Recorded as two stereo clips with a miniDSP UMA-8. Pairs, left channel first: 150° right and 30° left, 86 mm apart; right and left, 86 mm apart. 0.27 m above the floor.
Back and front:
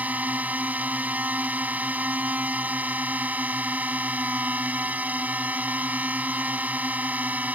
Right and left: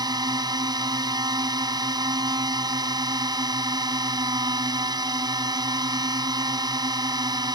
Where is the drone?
95° left.